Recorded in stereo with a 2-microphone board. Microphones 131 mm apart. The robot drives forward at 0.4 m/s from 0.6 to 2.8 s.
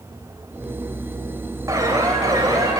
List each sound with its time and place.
1.7 s an alarm: 25° right (ahead or behind), 3 m